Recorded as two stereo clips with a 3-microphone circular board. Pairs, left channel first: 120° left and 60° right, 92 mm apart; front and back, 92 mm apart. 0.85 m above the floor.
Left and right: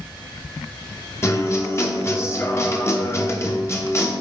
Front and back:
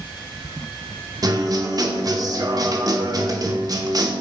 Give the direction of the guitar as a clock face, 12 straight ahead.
7 o'clock.